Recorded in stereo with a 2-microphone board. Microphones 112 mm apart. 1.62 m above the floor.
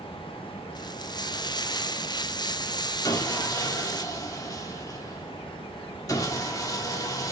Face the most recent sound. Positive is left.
turn(degrees=35)  # may be behind; listen again after turning